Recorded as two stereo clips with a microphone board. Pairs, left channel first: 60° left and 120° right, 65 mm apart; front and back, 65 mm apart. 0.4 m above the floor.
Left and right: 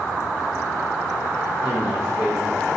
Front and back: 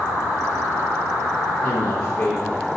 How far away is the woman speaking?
About 6 m.